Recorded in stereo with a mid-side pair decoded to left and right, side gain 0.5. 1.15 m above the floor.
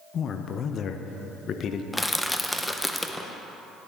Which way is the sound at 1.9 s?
5° left.